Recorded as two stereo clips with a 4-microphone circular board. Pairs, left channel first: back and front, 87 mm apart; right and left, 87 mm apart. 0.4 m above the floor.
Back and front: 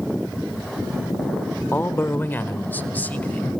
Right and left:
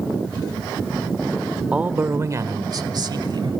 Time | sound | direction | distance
1.7 | a man speaking | 155° left | 1.0 m